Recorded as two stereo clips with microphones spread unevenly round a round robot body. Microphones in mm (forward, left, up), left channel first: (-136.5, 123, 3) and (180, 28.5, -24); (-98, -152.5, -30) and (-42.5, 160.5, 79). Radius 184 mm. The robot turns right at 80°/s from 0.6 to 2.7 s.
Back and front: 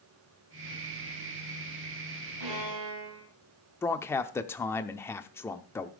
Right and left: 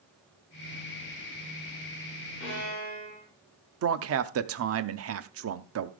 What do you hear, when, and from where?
2.4 s a violin: 55° right, 3 m; by 3.3 s 30° right, 3 m
3.8 s a man speaking: 80° left, 0.7 m